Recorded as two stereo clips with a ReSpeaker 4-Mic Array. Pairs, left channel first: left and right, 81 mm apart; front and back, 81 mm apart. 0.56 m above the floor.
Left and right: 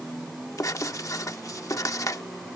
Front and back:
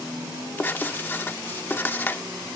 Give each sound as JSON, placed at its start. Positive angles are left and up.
{"t": 0.6, "sound": "writing", "azimuth_deg": 60}